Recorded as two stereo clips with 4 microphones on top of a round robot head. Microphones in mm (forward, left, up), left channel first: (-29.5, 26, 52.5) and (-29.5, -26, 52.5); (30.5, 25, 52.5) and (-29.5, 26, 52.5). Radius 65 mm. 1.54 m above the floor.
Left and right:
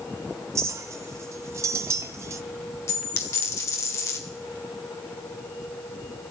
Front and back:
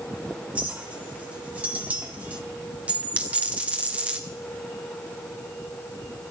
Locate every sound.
0.6 s a clink: 105° right, 0.5 m
2.9 s a dropped coin: 115° left, 2.0 m